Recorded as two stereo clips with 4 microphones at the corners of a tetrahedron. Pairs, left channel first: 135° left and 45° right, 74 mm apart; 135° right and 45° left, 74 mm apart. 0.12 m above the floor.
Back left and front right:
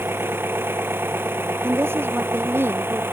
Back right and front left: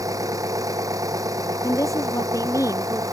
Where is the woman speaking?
100° right.